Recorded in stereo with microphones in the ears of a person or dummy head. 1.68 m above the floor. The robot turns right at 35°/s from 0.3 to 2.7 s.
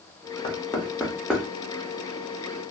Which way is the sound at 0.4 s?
30° left (ahead or behind).